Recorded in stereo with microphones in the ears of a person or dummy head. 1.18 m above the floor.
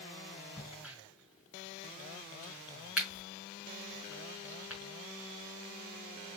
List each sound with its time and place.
0.6 s a crack: 10° right (ahead or behind), 2 m